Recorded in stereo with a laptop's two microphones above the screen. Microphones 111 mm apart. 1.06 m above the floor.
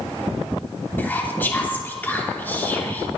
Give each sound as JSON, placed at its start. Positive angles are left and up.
{"t": 1.0, "sound": "whispering", "side_deg": 15, "distance_m": 3.5}